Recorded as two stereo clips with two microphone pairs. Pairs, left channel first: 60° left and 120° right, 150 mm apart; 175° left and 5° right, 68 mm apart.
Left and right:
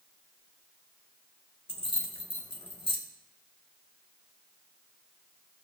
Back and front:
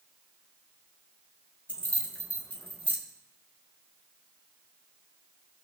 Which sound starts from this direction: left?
Keys jangling, at 1.7 s.